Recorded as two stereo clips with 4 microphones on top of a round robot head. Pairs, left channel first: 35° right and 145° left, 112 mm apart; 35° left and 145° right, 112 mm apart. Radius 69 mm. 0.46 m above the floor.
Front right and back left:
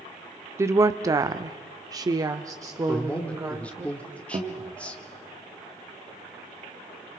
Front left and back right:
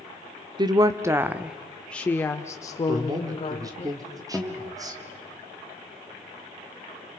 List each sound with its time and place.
0.6 s a woman speaking: 165° right, 0.9 m; by 3.9 s 75° left, 1.7 m
2.9 s a man speaking: 110° right, 1.5 m
4.3 s a guitar: 130° left, 1.4 m